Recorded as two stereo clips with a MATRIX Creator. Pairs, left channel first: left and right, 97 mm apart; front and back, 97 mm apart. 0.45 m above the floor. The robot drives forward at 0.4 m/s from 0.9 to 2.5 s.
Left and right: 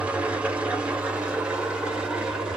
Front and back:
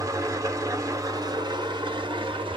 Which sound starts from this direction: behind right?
An engine running, at 0.0 s.